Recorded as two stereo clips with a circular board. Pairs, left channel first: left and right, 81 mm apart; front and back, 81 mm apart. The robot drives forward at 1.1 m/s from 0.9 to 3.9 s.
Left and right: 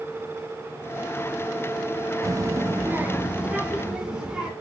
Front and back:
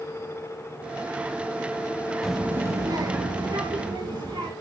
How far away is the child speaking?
About 0.6 m.